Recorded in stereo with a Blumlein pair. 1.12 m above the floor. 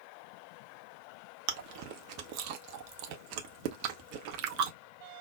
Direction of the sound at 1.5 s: 45° right.